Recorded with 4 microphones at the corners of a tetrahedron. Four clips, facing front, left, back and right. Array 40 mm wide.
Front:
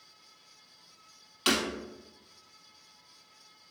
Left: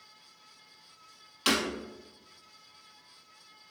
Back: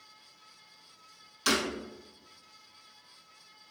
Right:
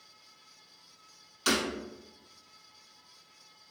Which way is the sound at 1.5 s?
45° left.